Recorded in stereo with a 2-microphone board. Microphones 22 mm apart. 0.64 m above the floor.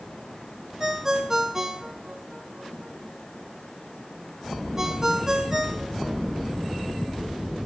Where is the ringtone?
25° right (ahead or behind), 1.0 m.